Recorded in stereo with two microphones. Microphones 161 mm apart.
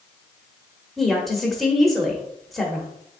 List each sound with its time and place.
1.0 s a woman speaking: centre (ahead or behind), 0.9 m